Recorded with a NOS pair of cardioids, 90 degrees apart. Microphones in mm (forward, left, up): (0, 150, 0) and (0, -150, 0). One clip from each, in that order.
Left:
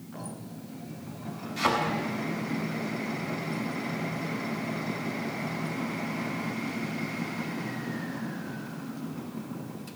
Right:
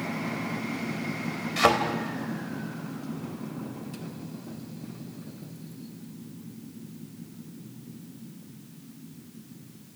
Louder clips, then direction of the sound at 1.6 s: Right 5 dB; 65° right.